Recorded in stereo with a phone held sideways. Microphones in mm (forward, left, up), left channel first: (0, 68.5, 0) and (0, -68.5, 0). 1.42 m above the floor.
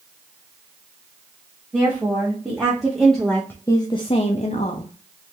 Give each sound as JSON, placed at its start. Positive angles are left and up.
{"t": 1.7, "sound": "a woman speaking", "side_deg": -15, "distance_m": 1.4}